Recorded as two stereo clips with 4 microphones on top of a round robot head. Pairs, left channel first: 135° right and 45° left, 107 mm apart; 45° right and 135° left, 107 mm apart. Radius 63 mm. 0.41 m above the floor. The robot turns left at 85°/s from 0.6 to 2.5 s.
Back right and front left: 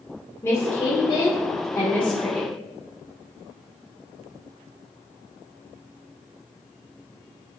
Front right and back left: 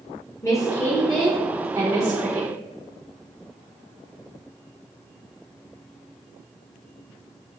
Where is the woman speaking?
85° right, 1.0 m; by 2.5 s 115° left, 1.0 m.